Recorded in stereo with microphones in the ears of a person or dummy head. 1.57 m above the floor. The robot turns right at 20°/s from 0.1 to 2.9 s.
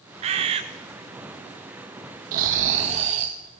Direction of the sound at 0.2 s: 35° right (ahead or behind).